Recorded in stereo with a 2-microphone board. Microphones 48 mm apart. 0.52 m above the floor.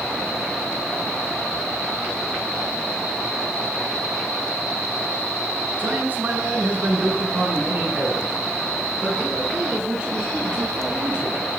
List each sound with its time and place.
5.8 s a man speaking: 35° right (ahead or behind), 8 m; by 11.4 s 15° right (ahead or behind), 14 m